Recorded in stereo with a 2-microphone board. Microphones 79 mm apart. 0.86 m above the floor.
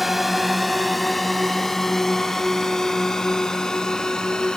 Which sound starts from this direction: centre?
A drone, at 0.0 s.